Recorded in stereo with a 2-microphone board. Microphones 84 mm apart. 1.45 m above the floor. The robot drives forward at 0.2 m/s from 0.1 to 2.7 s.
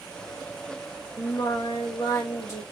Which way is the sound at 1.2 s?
50° left (ahead or behind).